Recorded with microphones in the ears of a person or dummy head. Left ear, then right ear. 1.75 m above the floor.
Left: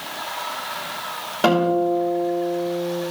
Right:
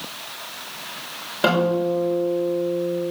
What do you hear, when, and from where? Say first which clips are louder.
1.4 s a guitar: left 1 dB; 5° left (ahead or behind), 5.5 m